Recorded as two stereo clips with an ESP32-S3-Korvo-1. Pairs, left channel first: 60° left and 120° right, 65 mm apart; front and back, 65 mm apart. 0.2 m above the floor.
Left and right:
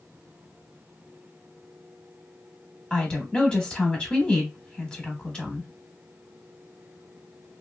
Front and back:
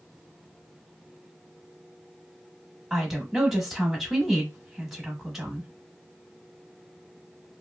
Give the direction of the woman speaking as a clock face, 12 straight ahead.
9 o'clock.